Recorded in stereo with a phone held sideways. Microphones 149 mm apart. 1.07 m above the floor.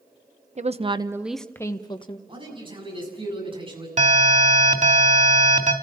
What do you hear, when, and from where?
0.6 s a woman speaking: 50° right (ahead or behind), 0.9 m; by 2.2 s 35° left (ahead or behind), 1.3 m
2.3 s a man speaking: 35° right (ahead or behind), 7.5 m
4.0 s an alarm: 55° right (ahead or behind), 3 m